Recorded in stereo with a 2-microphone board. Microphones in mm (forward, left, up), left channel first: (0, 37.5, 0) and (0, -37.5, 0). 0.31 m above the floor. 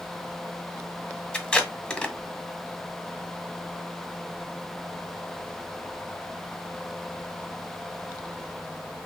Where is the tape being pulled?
15° left (ahead or behind), 1.1 m.